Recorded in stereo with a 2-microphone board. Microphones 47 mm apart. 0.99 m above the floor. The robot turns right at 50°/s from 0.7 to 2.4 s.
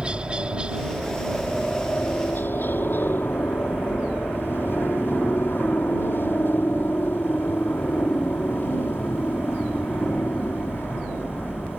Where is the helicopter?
25° right; by 11.8 s 60° left.